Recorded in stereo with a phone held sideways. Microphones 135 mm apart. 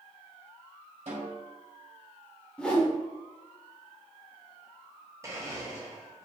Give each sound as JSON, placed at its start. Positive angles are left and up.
{"t": 1.1, "sound": "a snare drum", "side_deg": -55, "distance_m": 1.5}
{"t": 2.6, "sound": "a whoosh", "side_deg": 10, "distance_m": 0.7}
{"t": 5.2, "sound": "a blender", "side_deg": -25, "distance_m": 0.7}